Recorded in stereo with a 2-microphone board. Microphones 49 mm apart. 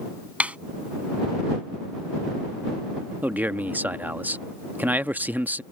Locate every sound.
0.4 s a snare drum: 30° right (ahead or behind)
3.2 s a man speaking: 40° right (ahead or behind)